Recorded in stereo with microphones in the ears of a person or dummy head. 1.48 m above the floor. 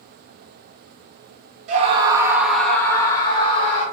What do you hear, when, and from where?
1.7 s a scream: 40° right (ahead or behind), 0.8 m; by 3.8 s 35° left (ahead or behind), 1.5 m